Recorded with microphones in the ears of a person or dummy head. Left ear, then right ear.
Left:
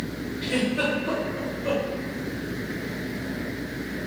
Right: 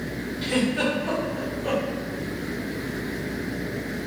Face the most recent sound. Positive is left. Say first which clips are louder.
# right 1 dB
turn(degrees=-55)  # may be behind; listen again after turning